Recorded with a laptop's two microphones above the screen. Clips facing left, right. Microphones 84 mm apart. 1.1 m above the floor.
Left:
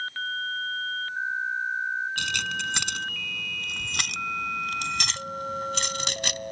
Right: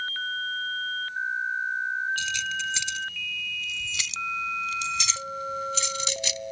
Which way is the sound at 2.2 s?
60° left (ahead or behind).